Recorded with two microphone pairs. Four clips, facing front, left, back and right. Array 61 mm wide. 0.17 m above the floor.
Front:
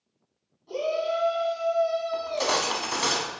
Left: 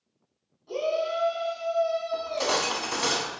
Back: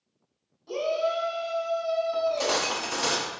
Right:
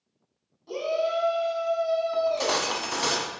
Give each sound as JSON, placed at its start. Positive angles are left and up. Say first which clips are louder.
{"t": 0.7, "sound": "a shout", "louder": "right 1 dB, even", "azimuth_deg": -135, "distance_m": 1.5}
{"t": 2.1, "sound": "cutlery clinking", "louder": "right 3 dB, back 1 dB", "azimuth_deg": -15, "distance_m": 0.7}